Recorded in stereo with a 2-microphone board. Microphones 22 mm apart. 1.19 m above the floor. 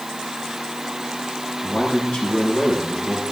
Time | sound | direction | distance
1.6 | a man speaking | 45° left (ahead or behind) | 8.5 m